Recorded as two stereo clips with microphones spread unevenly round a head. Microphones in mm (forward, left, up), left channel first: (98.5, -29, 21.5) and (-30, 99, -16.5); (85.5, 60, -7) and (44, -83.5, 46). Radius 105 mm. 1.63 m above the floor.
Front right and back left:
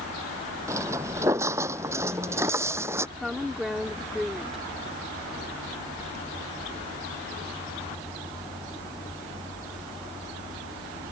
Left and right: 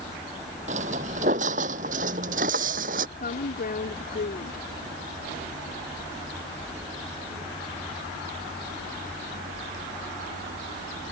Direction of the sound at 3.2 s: 45° left.